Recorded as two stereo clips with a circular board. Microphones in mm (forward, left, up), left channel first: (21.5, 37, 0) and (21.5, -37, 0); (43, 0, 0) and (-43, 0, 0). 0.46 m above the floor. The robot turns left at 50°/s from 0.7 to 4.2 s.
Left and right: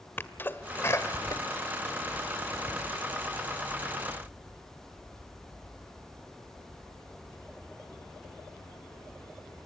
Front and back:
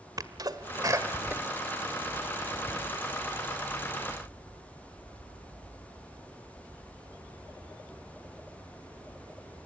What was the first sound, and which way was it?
A sneeze, 145° left.